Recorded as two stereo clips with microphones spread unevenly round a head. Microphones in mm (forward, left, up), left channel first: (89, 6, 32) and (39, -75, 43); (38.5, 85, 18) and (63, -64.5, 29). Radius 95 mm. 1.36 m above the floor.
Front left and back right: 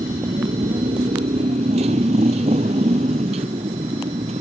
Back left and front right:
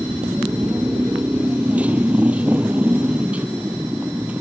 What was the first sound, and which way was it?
A motorcycle, 165° right.